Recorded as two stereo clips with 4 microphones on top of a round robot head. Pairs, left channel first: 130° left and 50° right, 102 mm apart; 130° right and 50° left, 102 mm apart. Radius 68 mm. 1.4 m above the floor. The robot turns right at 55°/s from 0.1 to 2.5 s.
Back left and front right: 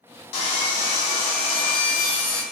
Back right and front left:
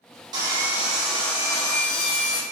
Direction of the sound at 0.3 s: 100° left.